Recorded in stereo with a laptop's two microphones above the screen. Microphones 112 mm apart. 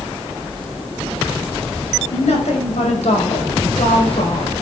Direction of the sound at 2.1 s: 80° left.